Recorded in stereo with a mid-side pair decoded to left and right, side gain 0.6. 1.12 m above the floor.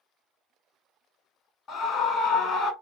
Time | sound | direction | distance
1.7 | a scream | 50° left | 1.3 m